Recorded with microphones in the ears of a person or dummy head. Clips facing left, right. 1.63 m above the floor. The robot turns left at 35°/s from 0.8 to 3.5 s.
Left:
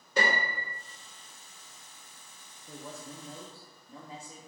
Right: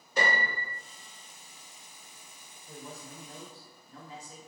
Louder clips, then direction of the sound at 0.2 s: Left 1 dB; 55° left (ahead or behind).